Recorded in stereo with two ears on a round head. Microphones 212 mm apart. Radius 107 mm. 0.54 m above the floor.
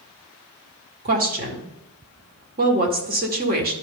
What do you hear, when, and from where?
1.1 s a woman speaking: 40° right (ahead or behind), 1.6 m